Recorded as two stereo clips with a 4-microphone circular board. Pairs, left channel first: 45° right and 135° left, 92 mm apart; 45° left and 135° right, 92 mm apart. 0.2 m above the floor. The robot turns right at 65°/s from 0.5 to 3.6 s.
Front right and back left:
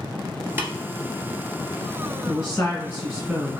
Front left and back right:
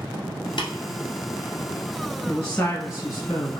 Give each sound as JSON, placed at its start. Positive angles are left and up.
{"t": 0.6, "sound": "tapping", "azimuth_deg": 70, "distance_m": 1.3}
{"t": 2.3, "sound": "a woman speaking", "azimuth_deg": -25, "distance_m": 1.6}